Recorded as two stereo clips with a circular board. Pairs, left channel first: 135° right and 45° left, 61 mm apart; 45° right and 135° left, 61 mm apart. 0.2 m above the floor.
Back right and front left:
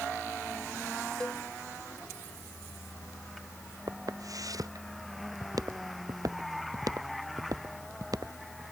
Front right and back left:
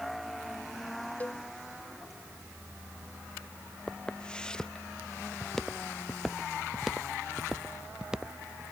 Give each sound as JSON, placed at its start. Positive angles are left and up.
{"t": 1.2, "sound": "a cowbell", "azimuth_deg": -70}
{"t": 3.9, "sound": "footsteps", "azimuth_deg": 25}